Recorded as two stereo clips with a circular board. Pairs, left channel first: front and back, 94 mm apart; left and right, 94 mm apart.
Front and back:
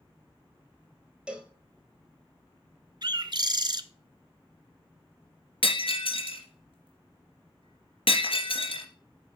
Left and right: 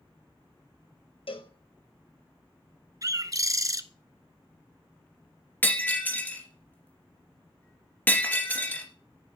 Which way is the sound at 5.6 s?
20° left.